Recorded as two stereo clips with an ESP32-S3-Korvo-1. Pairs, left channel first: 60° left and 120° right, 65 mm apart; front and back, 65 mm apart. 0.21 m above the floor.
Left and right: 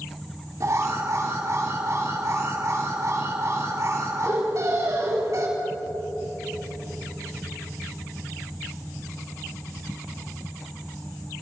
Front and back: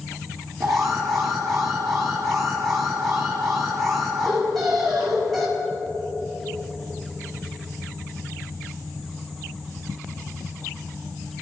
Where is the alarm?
85° right, 4.5 m.